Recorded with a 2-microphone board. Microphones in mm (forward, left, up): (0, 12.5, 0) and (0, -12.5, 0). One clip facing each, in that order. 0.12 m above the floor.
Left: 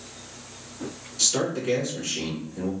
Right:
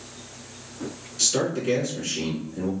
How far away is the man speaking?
About 1.6 m.